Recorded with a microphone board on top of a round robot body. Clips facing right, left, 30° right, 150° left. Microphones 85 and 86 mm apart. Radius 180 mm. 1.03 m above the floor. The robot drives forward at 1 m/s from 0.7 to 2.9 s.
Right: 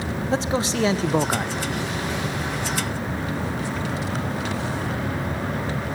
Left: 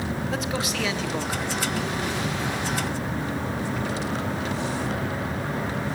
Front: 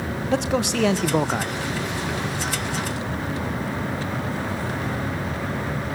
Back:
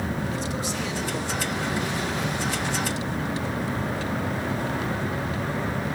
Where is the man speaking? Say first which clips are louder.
Right 9 dB, front 7 dB; 30° right, 1.4 m; by 1.5 s 70° right, 0.9 m.